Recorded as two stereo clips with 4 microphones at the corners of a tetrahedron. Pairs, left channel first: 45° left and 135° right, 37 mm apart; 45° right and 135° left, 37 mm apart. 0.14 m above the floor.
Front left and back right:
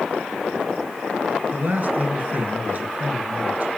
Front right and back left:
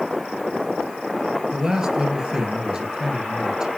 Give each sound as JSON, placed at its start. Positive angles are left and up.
{"t": 1.5, "sound": "a man speaking", "azimuth_deg": -155, "distance_m": 2.5}